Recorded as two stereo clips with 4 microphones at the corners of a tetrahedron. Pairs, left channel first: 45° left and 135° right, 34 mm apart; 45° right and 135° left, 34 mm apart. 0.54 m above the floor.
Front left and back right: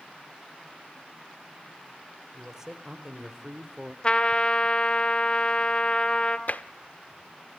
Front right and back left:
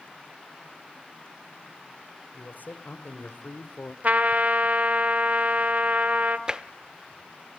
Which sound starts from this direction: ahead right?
A man speaking, at 2.3 s.